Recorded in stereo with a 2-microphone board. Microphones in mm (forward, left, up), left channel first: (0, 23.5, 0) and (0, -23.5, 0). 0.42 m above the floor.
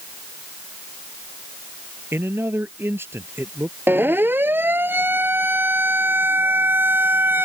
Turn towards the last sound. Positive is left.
turn(degrees=-50)  # may be behind; listen again after turning